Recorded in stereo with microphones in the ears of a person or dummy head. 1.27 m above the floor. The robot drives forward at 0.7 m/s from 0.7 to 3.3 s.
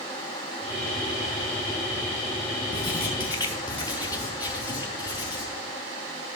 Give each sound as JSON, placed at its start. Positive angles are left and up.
{"t": 2.7, "sound": "writing", "side_deg": 25, "distance_m": 1.1}